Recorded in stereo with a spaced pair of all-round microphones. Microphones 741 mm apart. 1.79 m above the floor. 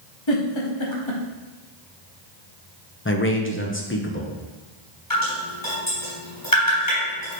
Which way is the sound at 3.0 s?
15° left (ahead or behind).